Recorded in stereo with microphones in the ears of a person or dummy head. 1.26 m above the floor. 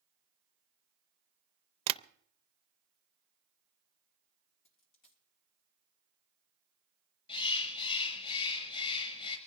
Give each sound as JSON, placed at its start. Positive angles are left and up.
{"t": 1.9, "sound": "tapping", "side_deg": -30, "distance_m": 0.6}
{"t": 4.7, "sound": "a dropped coin", "side_deg": 45, "distance_m": 3.0}
{"t": 7.3, "sound": "a bird", "side_deg": 35, "distance_m": 6.5}